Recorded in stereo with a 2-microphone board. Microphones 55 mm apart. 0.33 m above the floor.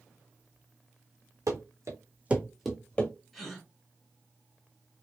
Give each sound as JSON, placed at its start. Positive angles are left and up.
{"t": 1.5, "sound": "running footsteps", "side_deg": -80, "distance_m": 1.5}
{"t": 3.3, "sound": "a gasp", "side_deg": -5, "distance_m": 2.0}